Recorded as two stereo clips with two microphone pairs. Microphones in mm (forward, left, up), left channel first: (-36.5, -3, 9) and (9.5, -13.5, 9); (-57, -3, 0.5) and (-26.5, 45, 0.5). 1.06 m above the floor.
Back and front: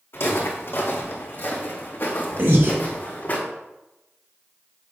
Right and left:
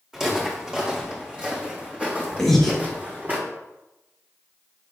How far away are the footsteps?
About 4 m.